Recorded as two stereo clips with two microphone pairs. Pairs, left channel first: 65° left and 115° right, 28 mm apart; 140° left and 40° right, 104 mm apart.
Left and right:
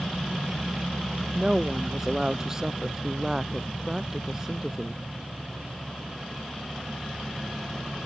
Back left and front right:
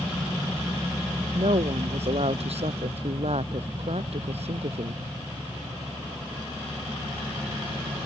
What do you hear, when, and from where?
1.4 s a woman speaking: 45° right